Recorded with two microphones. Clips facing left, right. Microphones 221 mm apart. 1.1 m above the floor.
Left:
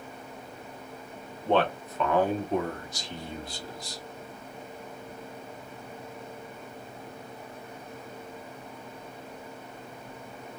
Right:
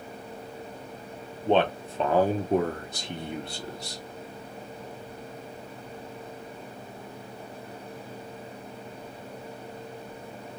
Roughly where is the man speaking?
Centre.